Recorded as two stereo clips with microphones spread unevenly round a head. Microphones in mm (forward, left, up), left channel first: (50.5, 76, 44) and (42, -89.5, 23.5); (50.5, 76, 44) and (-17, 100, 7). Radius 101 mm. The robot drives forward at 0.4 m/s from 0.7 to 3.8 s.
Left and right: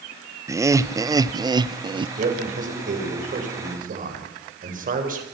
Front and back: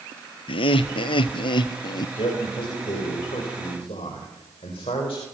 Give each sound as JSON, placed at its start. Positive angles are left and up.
{"t": 0.5, "sound": "laughter", "azimuth_deg": -30, "distance_m": 1.0}
{"t": 2.2, "sound": "a man speaking", "azimuth_deg": -50, "distance_m": 6.0}